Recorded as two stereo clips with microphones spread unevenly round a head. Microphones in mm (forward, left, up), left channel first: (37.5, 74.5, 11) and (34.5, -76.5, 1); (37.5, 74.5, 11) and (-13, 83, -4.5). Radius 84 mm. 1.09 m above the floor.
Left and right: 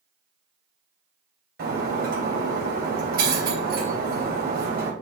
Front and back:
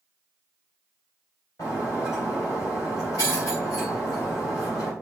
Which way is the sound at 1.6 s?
65° right.